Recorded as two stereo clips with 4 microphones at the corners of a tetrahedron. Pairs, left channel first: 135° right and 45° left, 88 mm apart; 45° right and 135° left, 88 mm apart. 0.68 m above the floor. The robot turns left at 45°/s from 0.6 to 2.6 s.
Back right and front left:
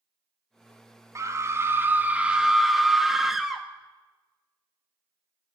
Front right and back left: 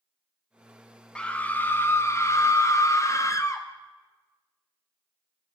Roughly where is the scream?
Ahead left.